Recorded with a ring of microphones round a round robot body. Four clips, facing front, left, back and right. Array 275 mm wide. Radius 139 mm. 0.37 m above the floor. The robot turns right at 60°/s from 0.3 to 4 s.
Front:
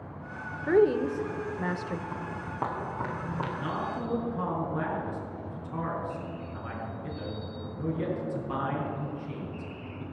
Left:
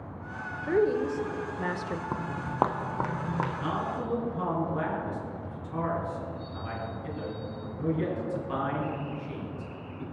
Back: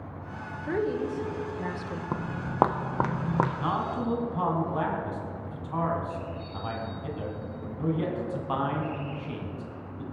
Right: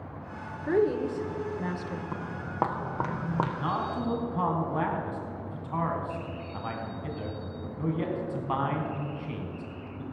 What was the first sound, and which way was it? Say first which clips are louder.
A woman speaking: even, front 6 dB; 10° right.